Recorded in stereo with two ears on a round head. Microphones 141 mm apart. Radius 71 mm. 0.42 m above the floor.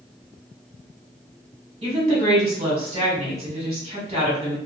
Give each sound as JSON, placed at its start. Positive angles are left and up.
{"t": 1.8, "sound": "a woman speaking", "side_deg": -40, "distance_m": 1.7}